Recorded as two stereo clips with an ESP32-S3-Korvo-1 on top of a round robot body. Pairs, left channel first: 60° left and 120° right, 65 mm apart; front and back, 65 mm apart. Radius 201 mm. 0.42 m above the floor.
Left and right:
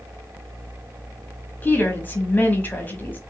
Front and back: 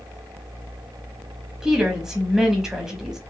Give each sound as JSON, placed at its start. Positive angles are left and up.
{"t": 1.6, "sound": "a woman speaking", "azimuth_deg": 100, "distance_m": 1.2}